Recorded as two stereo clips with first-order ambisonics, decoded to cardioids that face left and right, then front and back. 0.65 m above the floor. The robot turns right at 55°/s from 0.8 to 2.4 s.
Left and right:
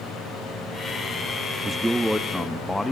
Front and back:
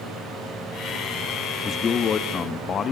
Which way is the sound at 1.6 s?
35° right.